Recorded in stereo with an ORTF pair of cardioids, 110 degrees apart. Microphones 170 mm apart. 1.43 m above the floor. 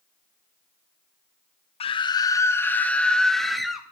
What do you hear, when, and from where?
1.8 s a scream: 35° left, 1.0 m; by 3.9 s straight ahead, 2.5 m